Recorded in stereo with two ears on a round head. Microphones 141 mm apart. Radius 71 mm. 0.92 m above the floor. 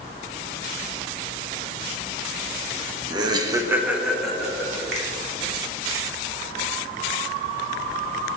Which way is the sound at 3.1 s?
25° right (ahead or behind).